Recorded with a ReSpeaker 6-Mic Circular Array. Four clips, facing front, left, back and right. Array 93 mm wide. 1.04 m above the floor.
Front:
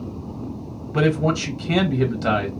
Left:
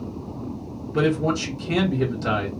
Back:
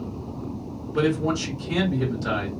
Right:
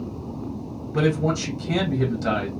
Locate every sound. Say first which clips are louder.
0.9 s a man speaking: left 1 dB, front 3 dB; 5° right, 1.5 m